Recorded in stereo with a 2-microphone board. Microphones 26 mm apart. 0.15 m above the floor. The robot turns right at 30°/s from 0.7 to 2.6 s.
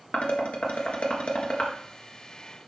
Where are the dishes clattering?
60° left (ahead or behind), 1.6 m; by 1.7 s 40° left (ahead or behind), 1.6 m.